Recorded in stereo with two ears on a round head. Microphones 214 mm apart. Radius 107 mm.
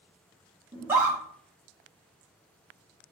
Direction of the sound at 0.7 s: 10° right (ahead or behind).